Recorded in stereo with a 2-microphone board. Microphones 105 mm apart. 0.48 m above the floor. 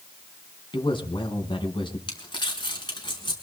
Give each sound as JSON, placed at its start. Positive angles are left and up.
{"t": 0.7, "sound": "a man speaking", "side_deg": 50, "distance_m": 4.5}
{"t": 2.1, "sound": "crumpling", "side_deg": 45, "distance_m": 5.0}